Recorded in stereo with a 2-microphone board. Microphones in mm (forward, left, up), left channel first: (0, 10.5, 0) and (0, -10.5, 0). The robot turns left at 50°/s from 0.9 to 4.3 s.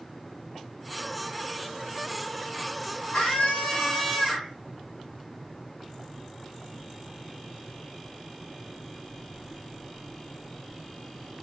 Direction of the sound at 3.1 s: 90° left.